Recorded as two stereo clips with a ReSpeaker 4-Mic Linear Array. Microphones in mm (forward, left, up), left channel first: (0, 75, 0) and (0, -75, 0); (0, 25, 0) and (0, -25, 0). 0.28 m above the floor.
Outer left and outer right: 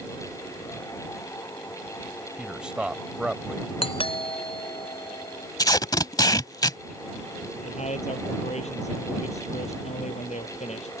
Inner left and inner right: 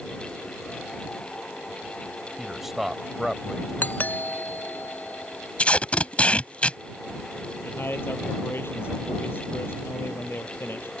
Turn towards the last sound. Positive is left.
turn(degrees=50)  # may be behind; listen again after turning